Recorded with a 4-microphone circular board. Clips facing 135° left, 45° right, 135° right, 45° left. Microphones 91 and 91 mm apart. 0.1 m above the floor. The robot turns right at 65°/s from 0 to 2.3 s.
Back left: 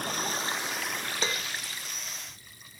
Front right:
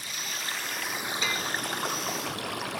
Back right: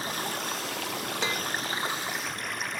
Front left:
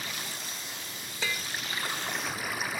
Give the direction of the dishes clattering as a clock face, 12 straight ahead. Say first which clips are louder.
Even, back right 1 dB; 6 o'clock.